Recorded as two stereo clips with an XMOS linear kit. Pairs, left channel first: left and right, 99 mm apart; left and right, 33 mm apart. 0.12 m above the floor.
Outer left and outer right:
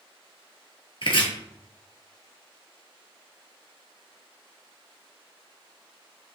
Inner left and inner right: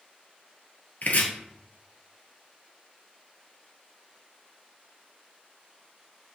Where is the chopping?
60° left (ahead or behind), 2.0 m.